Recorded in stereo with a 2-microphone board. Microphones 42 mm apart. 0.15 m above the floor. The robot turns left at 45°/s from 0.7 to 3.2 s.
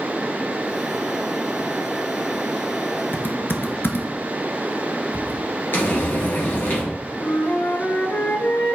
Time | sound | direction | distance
3.1 | typing on a keyboard | 60° left (ahead or behind) | 0.6 m
5.7 | frying | 60° left (ahead or behind) | 2 m
7.2 | a flute | 60° left (ahead or behind) | 0.7 m